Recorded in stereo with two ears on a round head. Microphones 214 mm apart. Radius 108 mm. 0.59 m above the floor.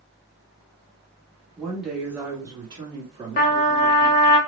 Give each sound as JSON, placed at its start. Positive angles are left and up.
{"t": 1.6, "sound": "a woman speaking", "side_deg": 5, "distance_m": 1.3}
{"t": 3.4, "sound": "a trumpet", "side_deg": 45, "distance_m": 0.6}